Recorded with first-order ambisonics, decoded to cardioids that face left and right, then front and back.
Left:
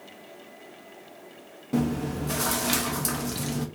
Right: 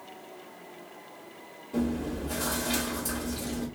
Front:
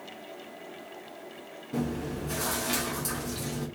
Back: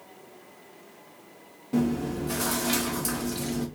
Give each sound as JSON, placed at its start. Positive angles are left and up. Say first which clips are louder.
{"t": 1.7, "sound": "chewing", "louder": "left 3 dB, back 5 dB", "azimuth_deg": 105, "distance_m": 1.1}